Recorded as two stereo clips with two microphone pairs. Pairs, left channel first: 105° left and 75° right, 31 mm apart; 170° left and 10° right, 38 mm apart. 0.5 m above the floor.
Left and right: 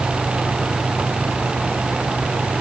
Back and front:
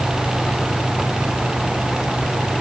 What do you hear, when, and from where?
Only background noise.